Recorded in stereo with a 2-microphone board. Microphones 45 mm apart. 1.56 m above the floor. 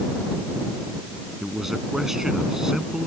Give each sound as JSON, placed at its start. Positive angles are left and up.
{"t": 1.4, "sound": "a man speaking", "side_deg": -5}